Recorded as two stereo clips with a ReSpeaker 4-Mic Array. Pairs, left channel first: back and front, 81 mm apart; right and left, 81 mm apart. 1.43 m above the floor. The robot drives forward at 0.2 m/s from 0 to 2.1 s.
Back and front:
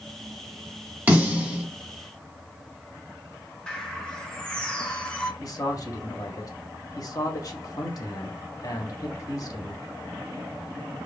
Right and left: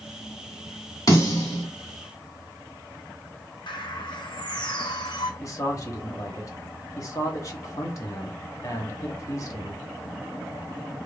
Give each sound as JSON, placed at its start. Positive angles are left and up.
{"t": 1.1, "sound": "a snare drum", "azimuth_deg": -65, "distance_m": 1.5}
{"t": 3.7, "sound": "a bird", "azimuth_deg": -100, "distance_m": 0.6}
{"t": 5.4, "sound": "a man speaking", "azimuth_deg": -135, "distance_m": 0.8}